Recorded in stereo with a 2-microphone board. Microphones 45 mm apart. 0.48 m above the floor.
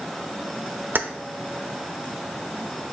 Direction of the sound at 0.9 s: 50° right (ahead or behind).